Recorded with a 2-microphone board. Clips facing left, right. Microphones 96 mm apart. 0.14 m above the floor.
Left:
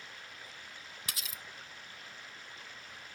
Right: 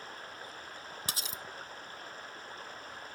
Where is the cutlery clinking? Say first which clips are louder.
Right 3 dB; 30° right (ahead or behind).